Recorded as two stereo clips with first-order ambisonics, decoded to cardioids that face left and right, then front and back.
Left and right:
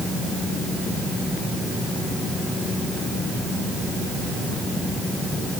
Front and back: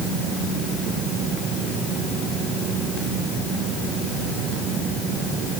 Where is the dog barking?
No dog barking in this recording.